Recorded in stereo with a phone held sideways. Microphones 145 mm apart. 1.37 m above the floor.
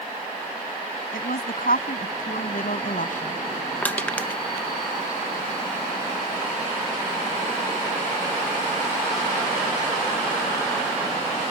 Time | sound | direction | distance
1.1 | a woman speaking | 80° left | ?
3.8 | crushing | 10° left (ahead or behind) | ?